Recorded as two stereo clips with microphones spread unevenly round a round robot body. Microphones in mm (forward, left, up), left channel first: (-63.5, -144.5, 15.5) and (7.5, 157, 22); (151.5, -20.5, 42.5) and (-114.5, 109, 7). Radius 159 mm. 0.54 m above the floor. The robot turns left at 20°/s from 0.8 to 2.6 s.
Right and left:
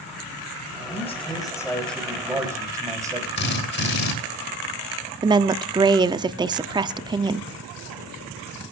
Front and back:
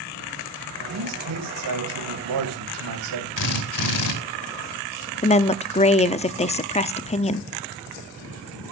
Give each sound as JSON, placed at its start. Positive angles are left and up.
{"t": 0.9, "sound": "a man speaking", "azimuth_deg": -170, "distance_m": 3.5}
{"t": 3.4, "sound": "a drill", "azimuth_deg": -50, "distance_m": 3.0}
{"t": 5.2, "sound": "a woman speaking", "azimuth_deg": 20, "distance_m": 0.7}